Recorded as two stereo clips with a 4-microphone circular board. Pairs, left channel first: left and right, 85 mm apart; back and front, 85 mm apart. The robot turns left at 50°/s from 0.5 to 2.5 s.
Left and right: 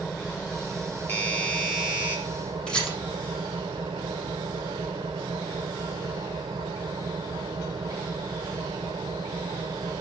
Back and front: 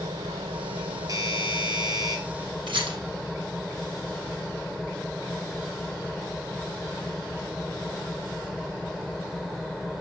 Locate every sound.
0.0 s an engine running: 15° left, 1.6 m; by 10.0 s 85° right, 1.6 m
1.1 s a doorbell: 30° left, 3 m; by 2.2 s 25° right, 3 m
2.7 s a rattle: 10° left, 3.5 m